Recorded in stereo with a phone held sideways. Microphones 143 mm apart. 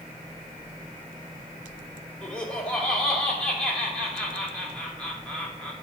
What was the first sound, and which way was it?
Laughter, 5° left (ahead or behind).